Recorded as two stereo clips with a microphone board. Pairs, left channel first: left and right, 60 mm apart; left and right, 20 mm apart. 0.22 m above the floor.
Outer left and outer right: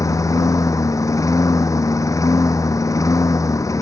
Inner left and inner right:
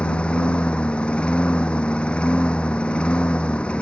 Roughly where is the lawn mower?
Left.